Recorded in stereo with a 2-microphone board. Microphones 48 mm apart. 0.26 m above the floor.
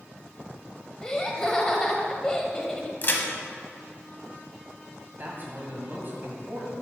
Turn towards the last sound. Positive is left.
turn(degrees=-40)  # may be behind; listen again after turning